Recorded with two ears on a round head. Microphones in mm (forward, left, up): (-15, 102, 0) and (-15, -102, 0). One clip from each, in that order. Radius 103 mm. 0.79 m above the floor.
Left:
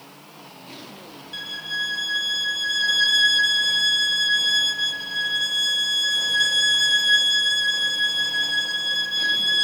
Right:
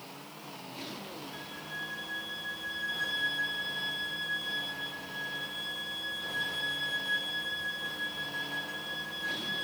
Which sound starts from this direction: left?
A violin, at 1.3 s.